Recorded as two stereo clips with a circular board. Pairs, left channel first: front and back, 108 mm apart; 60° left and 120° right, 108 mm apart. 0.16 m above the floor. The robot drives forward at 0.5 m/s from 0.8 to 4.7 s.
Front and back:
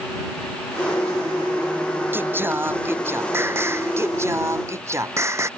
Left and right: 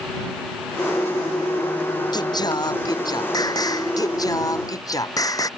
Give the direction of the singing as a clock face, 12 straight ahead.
8 o'clock.